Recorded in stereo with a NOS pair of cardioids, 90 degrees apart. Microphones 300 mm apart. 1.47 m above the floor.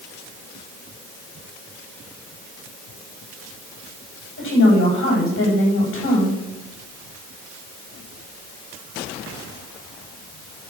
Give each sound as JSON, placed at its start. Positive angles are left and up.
{"t": 4.4, "sound": "a woman speaking", "azimuth_deg": 40, "distance_m": 9.0}